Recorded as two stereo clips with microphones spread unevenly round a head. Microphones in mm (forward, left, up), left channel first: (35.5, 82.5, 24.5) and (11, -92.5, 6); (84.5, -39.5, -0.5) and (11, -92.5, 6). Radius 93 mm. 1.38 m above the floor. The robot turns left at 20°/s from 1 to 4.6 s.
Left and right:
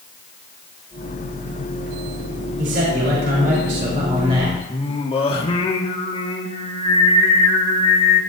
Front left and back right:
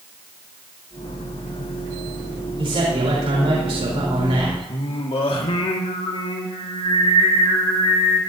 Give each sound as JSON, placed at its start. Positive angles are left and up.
{"t": 2.6, "sound": "a man speaking", "azimuth_deg": -125, "distance_m": 4.0}
{"t": 4.7, "sound": "singing", "azimuth_deg": 25, "distance_m": 2.0}